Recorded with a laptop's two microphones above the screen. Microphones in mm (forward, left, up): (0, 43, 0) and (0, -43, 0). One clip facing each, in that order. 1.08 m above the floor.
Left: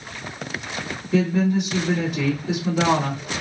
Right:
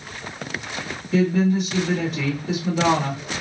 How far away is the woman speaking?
About 1.4 m.